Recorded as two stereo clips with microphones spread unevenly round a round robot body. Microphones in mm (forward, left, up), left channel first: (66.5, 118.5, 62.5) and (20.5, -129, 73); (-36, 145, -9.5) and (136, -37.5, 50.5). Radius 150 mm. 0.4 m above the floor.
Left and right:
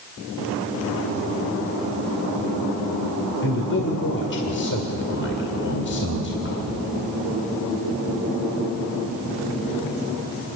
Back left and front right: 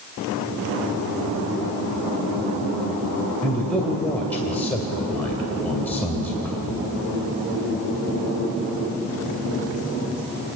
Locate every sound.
3.4 s a man speaking: 60° left, 2 m